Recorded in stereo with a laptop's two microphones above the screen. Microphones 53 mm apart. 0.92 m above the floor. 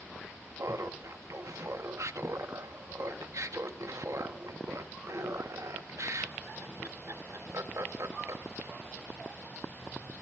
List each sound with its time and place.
0.6 s laughter: 65° right (ahead or behind), 1.1 m